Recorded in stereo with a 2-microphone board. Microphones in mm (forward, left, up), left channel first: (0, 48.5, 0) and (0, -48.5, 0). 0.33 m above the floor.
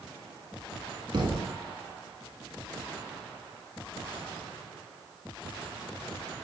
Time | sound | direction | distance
1.1 | a thud | 55° right (ahead or behind) | 1.2 m